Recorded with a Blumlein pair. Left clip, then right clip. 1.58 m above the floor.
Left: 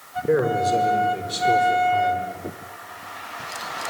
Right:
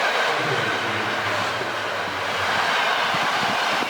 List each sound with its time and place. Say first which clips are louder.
0.3 s a man speaking: left 2 dB; 40° left, 6 m; by 2.3 s 60° left, 5.5 m